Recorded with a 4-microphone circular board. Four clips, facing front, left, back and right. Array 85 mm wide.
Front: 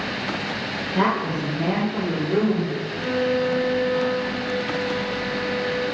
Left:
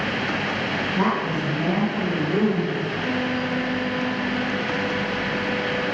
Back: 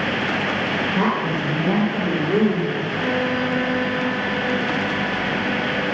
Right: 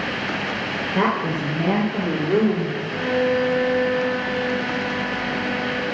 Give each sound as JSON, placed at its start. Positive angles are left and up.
{"t": 0.9, "sound": "a woman speaking", "azimuth_deg": -80, "distance_m": 3.0}
{"t": 2.9, "sound": "a violin", "azimuth_deg": -135, "distance_m": 2.5}